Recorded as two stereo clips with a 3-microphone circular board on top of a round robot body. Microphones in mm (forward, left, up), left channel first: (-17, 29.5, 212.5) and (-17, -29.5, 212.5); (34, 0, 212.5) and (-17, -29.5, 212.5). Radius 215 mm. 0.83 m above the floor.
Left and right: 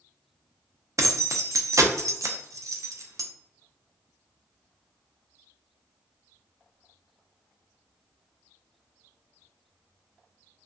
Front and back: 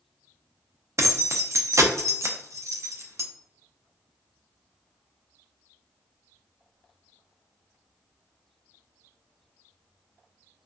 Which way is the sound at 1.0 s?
115° right.